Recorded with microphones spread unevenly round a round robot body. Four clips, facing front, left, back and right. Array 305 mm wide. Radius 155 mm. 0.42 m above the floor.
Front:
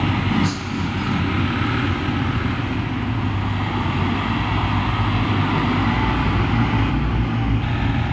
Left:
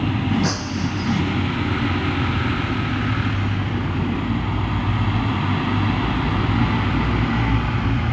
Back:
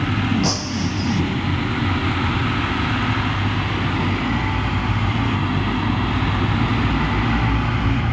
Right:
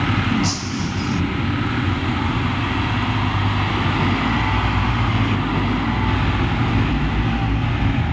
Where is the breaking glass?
145° left.